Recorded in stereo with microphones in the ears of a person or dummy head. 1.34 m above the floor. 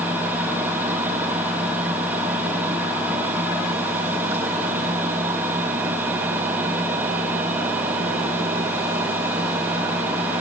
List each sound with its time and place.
0.0 s a fan: 10° right (ahead or behind), 1.0 m